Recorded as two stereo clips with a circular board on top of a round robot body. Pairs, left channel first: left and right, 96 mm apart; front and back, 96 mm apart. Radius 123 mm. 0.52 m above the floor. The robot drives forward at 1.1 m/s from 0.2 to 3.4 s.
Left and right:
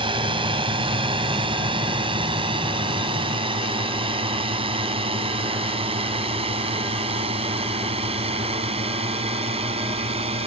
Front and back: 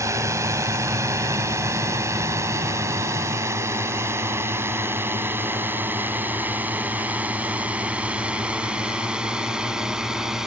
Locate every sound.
0.0 s a drone: 120° right; by 10.5 s 95° right